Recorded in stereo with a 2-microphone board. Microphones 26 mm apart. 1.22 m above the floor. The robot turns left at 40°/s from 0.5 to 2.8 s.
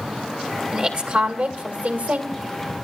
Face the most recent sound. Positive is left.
turn(degrees=-120)